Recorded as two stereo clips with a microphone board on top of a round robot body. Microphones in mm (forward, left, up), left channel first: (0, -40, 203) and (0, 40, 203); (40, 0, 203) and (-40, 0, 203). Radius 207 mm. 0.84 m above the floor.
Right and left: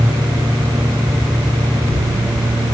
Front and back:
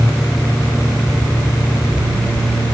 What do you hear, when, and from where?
Only background noise.